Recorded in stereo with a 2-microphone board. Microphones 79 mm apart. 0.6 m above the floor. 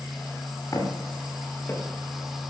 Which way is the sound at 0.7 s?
40° left (ahead or behind).